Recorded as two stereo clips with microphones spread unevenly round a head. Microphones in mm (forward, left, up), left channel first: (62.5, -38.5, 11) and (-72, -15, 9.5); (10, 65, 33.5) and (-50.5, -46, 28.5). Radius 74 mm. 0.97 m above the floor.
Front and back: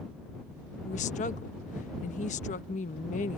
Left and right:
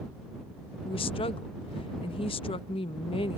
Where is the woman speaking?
20° left.